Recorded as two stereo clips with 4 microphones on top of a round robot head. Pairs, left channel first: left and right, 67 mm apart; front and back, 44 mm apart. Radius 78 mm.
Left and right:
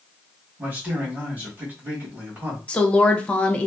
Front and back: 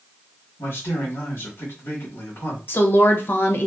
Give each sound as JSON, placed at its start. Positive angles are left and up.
{"t": 0.6, "sound": "a man speaking", "azimuth_deg": -25, "distance_m": 1.3}
{"t": 2.7, "sound": "a woman speaking", "azimuth_deg": 20, "distance_m": 0.7}